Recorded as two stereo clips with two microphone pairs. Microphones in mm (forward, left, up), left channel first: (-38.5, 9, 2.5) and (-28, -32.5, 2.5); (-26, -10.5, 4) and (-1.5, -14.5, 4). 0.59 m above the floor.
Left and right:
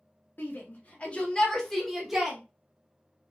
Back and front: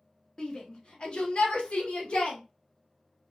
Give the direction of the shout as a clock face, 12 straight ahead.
8 o'clock.